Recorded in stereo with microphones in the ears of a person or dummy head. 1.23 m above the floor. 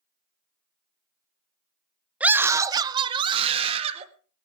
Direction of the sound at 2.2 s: 5° right (ahead or behind).